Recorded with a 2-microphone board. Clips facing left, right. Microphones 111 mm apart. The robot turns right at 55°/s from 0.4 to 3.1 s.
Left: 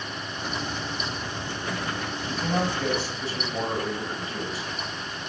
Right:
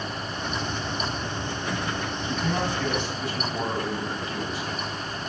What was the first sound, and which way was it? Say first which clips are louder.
A man speaking: left 1 dB; 100° left.